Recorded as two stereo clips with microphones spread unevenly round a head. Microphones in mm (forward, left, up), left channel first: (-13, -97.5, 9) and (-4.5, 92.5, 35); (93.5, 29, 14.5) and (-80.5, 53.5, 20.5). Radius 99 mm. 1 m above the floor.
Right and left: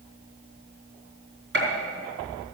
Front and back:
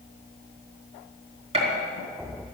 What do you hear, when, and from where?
1.5 s a gunshot: 115° left, 4.5 m